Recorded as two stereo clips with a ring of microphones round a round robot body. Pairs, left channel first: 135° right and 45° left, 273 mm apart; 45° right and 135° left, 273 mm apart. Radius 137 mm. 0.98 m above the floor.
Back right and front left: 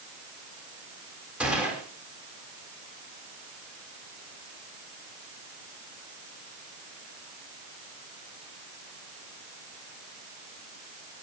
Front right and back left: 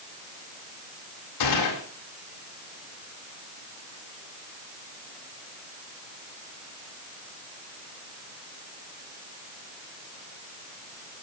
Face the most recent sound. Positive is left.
turn(degrees=-40)